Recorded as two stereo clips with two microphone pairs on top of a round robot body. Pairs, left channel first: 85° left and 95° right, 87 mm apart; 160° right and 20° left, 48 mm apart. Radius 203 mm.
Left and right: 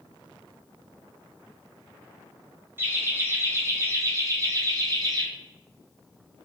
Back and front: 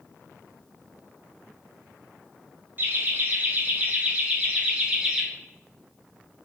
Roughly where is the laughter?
Ahead right.